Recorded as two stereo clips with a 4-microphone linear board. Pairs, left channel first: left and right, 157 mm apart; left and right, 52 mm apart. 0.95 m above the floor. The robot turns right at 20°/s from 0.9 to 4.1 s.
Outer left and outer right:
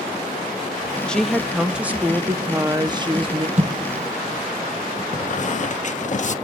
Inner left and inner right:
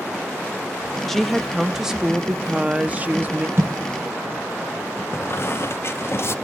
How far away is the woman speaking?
About 0.9 m.